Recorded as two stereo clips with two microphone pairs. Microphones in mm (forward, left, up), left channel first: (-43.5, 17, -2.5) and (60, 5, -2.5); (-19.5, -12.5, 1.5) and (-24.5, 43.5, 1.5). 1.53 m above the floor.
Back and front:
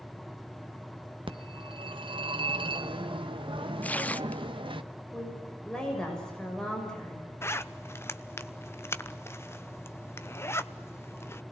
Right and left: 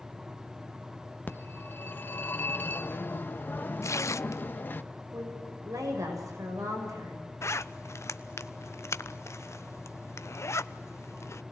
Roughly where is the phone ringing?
Ahead right.